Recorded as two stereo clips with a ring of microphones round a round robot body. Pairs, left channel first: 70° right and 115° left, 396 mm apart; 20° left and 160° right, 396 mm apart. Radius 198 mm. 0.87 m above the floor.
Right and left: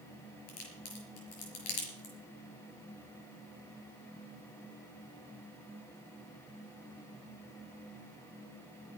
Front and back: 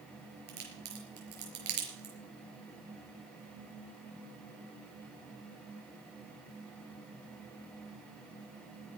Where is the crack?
95° right, 5.5 m.